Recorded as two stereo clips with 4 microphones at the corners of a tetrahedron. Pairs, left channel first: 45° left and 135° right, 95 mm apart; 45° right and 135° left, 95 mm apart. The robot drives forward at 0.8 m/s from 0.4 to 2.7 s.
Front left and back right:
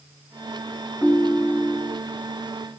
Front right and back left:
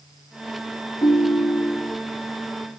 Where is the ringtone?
30° right, 0.8 m; by 2.0 s 140° right, 0.7 m.